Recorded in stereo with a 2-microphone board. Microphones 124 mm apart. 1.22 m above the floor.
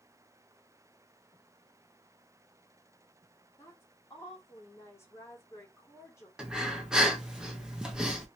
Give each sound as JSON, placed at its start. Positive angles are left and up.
{"t": 3.6, "sound": "a woman speaking", "side_deg": 20, "distance_m": 1.6}
{"t": 6.4, "sound": "breathing", "side_deg": -5, "distance_m": 0.8}